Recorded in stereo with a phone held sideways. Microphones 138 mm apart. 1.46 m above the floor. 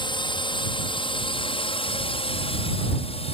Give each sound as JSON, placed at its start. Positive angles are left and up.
{"t": 0.0, "sound": "a drone", "side_deg": 35}